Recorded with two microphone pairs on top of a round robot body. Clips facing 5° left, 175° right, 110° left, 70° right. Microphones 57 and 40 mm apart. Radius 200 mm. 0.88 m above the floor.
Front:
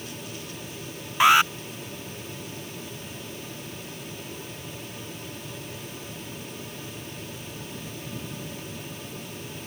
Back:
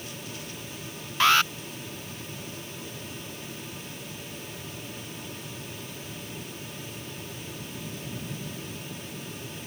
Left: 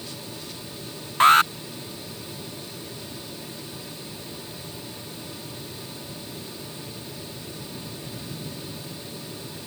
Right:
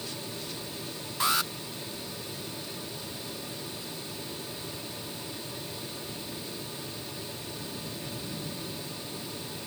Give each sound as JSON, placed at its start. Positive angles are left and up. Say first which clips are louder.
{"t": 1.2, "sound": "an alarm", "louder": "front 4 dB, left 13 dB", "azimuth_deg": 75}